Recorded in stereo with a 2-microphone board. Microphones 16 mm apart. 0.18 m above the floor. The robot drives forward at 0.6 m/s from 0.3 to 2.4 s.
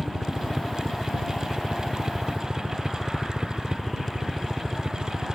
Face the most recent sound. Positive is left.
turn(degrees=-40)  # may be behind; listen again after turning